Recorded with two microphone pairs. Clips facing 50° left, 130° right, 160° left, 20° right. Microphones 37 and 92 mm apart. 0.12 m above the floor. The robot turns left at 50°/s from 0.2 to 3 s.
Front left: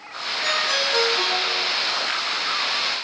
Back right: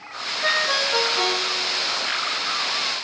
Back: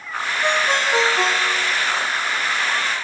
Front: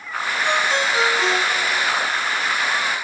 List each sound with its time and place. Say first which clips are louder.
0.4 s a ringtone: back right 1 dB, back 1 dB; 175° left, 6.5 m; by 1.8 s 105° left, 6.5 m